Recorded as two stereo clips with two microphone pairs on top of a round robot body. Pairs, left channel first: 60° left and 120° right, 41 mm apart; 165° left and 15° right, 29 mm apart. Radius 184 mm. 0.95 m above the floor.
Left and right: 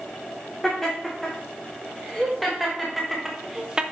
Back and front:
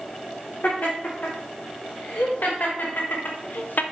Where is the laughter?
140° left, 3 m; by 3.8 s 170° left, 0.7 m.